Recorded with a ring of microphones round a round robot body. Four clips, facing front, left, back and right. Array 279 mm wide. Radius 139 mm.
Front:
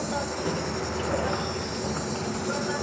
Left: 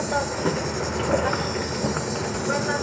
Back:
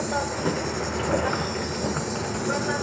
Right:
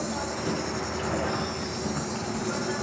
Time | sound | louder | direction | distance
0.0 | an insect | left 6 dB, back 3 dB | 110° left | 1.2 m